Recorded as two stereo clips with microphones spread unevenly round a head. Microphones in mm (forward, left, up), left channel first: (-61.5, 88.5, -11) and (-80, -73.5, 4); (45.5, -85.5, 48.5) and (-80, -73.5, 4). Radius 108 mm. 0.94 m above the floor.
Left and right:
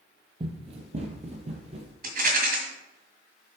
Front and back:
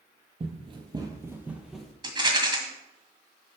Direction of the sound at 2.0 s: 120° right.